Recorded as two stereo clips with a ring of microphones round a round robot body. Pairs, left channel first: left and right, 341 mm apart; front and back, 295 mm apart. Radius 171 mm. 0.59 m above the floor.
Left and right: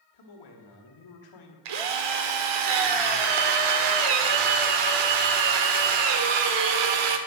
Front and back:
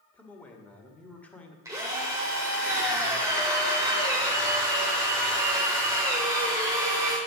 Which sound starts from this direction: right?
A drill, at 1.6 s.